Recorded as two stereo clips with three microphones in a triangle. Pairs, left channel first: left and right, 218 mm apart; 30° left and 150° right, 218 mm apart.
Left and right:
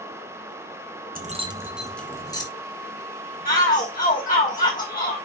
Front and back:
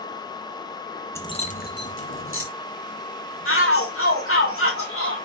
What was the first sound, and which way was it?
Keys jangling, 50° right.